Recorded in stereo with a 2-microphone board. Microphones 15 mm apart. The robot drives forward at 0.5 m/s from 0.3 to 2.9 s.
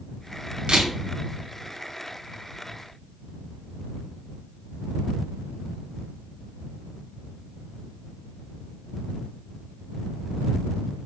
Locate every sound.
0.7 s a camera shutter: 65° right (ahead or behind), 1.3 m; by 0.9 s 70° right (ahead or behind), 1.2 m